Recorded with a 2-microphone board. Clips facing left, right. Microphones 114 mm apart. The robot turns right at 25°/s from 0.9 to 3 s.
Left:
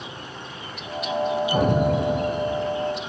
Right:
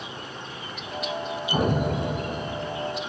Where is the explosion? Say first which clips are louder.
Left 2 dB; 65° right, 1.6 m; by 2.9 s 35° right, 1.6 m.